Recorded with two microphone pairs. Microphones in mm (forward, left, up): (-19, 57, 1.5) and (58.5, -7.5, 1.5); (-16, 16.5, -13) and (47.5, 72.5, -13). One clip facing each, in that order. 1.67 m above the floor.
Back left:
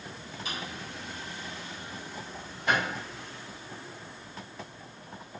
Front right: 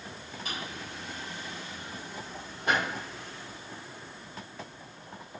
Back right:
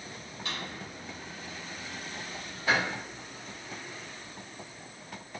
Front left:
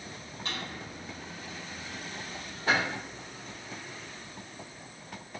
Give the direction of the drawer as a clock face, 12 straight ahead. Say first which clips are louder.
Even, even; 12 o'clock.